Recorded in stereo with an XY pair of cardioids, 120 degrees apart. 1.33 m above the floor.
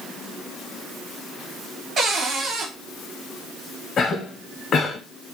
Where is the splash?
No splash in this recording.